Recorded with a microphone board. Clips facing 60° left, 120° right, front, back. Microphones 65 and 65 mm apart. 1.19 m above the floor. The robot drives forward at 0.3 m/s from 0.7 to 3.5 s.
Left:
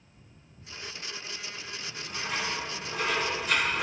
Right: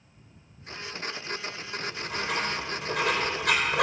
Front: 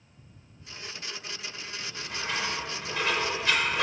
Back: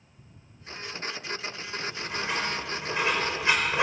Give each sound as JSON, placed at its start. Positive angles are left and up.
{"t": 1.8, "sound": "writing", "azimuth_deg": -105, "distance_m": 5.0}